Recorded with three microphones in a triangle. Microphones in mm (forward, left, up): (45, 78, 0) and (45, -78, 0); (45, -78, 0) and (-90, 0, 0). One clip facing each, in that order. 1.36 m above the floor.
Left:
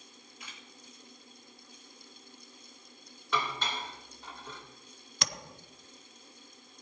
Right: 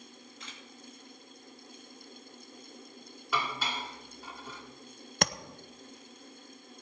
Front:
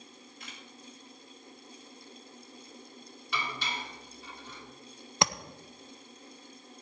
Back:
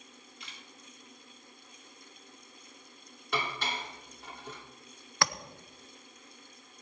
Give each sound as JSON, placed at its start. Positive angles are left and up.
{"t": 0.4, "sound": "a camera shutter", "azimuth_deg": 10, "distance_m": 3.0}
{"t": 3.3, "sound": "dishes clattering", "azimuth_deg": -175, "distance_m": 2.5}
{"t": 5.2, "sound": "tapping", "azimuth_deg": -100, "distance_m": 0.6}